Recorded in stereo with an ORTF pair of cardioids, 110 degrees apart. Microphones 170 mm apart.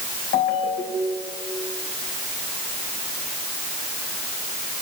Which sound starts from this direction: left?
A ringtone, at 0.3 s.